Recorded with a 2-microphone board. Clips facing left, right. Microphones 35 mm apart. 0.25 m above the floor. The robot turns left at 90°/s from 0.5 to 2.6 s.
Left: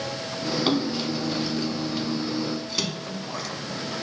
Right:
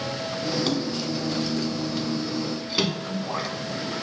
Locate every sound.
0.7 s a splash: 25° left (ahead or behind), 1.1 m; by 3.5 s 20° right (ahead or behind), 1.1 m